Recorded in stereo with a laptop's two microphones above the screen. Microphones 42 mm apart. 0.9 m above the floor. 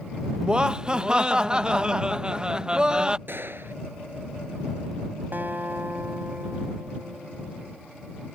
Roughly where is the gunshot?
Right.